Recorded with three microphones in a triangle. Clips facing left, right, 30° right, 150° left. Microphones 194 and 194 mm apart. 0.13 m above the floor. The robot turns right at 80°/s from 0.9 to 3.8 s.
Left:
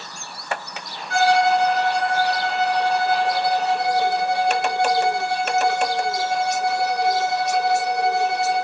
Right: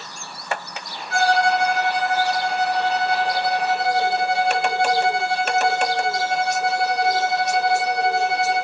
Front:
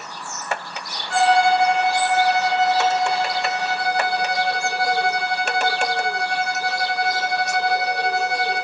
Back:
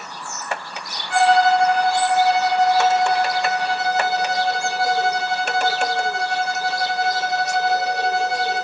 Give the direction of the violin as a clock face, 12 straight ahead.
12 o'clock.